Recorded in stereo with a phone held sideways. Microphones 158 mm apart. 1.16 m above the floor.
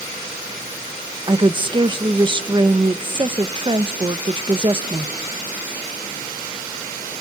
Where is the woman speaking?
30° right (ahead or behind), 0.9 m.